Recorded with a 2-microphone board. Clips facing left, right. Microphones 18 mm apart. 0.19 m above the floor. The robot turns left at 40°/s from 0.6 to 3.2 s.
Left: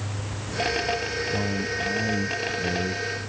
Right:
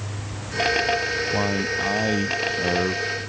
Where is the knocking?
I don't hear knocking.